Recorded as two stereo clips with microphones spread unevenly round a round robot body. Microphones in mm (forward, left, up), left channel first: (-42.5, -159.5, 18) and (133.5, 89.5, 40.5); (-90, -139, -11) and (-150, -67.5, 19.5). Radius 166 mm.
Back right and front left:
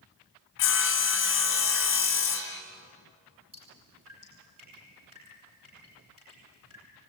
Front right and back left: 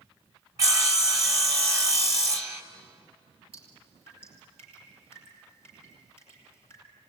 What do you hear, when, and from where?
0.6 s sawing: 165° right, 1.6 m
3.5 s dripping: 125° left, 8 m